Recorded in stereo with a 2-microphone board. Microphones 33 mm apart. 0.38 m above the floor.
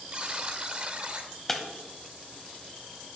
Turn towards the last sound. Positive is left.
turn(degrees=10)  # may be behind; listen again after turning